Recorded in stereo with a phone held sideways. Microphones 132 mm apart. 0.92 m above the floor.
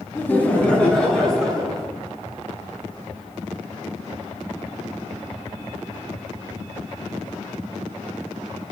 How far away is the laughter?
About 2.0 m.